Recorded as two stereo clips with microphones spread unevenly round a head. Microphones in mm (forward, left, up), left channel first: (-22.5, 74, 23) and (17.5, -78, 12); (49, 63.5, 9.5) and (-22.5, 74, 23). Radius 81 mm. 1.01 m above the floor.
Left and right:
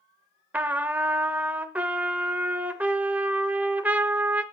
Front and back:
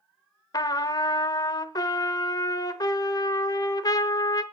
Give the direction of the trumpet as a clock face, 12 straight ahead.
12 o'clock.